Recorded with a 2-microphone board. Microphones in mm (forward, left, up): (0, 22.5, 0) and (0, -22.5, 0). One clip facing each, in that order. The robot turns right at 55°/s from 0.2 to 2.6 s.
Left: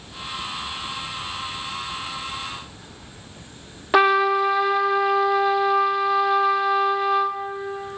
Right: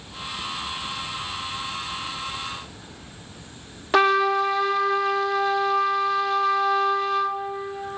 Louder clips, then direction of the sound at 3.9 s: Left 2 dB; 10° left (ahead or behind).